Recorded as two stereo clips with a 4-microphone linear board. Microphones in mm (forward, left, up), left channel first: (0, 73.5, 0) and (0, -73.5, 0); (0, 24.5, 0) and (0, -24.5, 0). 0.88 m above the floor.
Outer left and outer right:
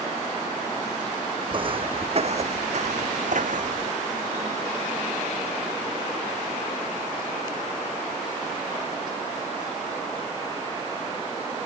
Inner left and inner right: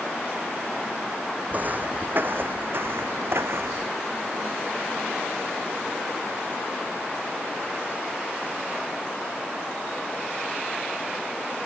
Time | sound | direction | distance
1.5 | footsteps | 35° right (ahead or behind) | ?